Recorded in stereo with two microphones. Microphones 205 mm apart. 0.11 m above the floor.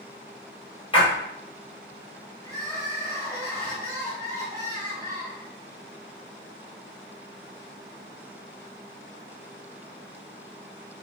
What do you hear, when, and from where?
0.9 s a splash: 25° left (ahead or behind), 1.1 m
2.4 s crying: 10° left (ahead or behind), 1.4 m